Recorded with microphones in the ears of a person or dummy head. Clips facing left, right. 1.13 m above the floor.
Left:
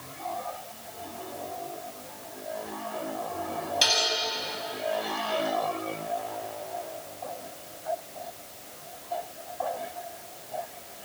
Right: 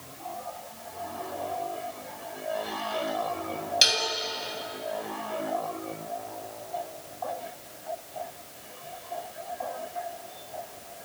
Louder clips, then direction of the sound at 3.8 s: Left 1 dB; 35° right (ahead or behind).